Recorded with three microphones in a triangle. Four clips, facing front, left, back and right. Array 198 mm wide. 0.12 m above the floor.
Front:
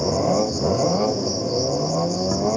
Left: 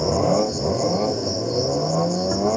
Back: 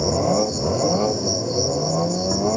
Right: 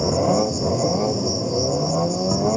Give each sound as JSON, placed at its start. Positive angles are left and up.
{"t": 0.0, "sound": "an insect", "azimuth_deg": -80, "distance_m": 1.2}